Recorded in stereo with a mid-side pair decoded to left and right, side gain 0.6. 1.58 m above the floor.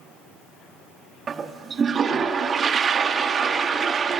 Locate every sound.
1.3 s a toilet flushing: 35° right, 0.7 m